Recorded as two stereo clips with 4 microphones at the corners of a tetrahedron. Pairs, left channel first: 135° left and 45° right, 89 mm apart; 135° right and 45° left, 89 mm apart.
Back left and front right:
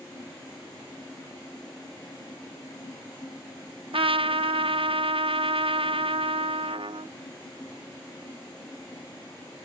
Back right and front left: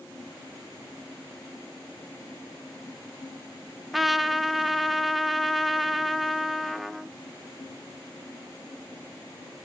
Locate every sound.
3.9 s a trumpet: 45° right, 0.7 m